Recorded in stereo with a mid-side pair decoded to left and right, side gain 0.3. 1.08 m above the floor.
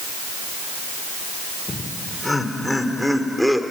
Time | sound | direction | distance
1.7 | laughter | 30° left | 5 m